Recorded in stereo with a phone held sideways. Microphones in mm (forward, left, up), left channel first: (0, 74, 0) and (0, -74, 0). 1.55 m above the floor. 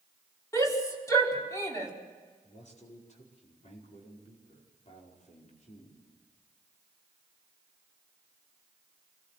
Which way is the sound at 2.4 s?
50° left (ahead or behind).